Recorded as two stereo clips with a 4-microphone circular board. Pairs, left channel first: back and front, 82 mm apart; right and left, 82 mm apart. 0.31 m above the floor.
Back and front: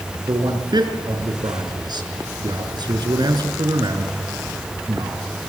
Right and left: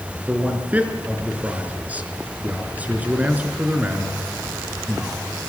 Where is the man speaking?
20° left, 4 m.